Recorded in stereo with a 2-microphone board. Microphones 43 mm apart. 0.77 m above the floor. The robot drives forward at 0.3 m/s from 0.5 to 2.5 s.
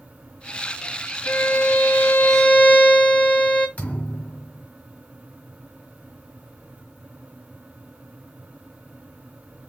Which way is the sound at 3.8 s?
35° left (ahead or behind).